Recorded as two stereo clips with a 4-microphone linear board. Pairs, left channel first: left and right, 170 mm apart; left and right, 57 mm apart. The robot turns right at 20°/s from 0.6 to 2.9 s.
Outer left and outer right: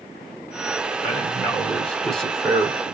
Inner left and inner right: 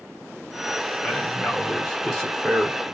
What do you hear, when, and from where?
1.0 s a man speaking: 10° left (ahead or behind), 1.4 m; by 2.8 s centre (ahead or behind), 1.4 m